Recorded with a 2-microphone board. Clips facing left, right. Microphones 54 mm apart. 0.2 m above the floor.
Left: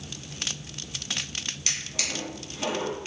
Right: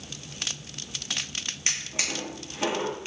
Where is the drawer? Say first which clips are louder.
Right 3 dB; 30° right (ahead or behind), 1.1 m.